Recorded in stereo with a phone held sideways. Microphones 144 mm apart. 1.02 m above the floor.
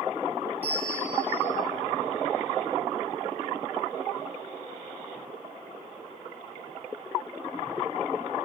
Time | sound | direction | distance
0.6 | a bell | 10° left (ahead or behind) | 4.5 m